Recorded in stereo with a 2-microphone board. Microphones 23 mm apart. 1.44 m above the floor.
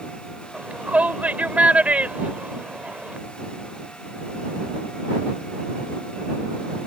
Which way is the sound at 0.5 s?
70° right (ahead or behind).